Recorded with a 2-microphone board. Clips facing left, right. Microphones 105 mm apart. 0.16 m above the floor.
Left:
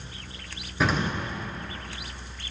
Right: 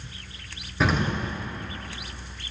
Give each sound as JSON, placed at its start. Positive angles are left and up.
{"t": 0.8, "sound": "an explosion", "side_deg": 0, "distance_m": 1.9}